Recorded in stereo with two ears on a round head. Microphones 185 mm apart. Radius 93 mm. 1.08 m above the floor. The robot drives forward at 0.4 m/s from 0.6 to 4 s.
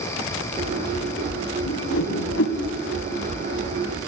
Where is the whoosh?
70° left (ahead or behind), 2.5 m.